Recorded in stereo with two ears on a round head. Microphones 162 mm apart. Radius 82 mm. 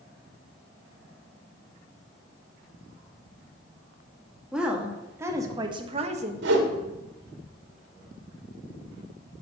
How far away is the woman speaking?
About 1.9 m.